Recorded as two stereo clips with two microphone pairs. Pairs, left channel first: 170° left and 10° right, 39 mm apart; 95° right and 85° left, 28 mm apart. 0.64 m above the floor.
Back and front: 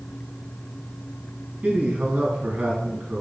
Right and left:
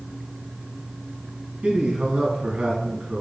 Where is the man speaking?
40° left, 4.5 m.